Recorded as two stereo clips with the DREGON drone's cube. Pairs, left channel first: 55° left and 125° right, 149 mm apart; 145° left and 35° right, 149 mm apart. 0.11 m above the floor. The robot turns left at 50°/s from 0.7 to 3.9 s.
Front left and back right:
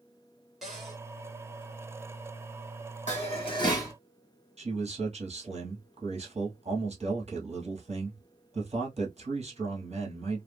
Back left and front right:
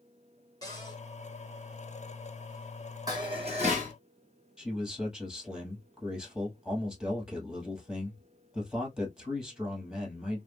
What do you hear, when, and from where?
0.6 s a cupboard door: 150° left, 1.7 m; by 1.0 s 135° left, 1.7 m
3.1 s dishes clattering: 25° left, 2 m; by 3.9 s 15° right, 2 m
4.6 s a man speaking: 120° right, 1.7 m